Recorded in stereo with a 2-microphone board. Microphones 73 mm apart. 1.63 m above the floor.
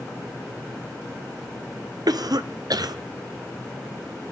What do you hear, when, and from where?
2.1 s a cough: 65° right (ahead or behind), 0.8 m